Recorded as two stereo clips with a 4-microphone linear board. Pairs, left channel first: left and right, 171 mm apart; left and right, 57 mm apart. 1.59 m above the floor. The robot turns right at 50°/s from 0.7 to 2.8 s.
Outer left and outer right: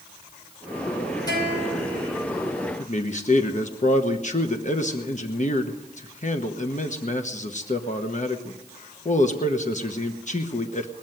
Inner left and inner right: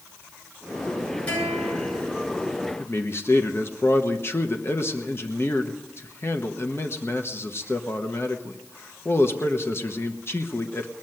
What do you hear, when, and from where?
1.3 s a guitar: 25° left, 9.5 m; by 2.0 s 60° left, 9.5 m
2.8 s a man speaking: 45° left (ahead or behind), 1.2 m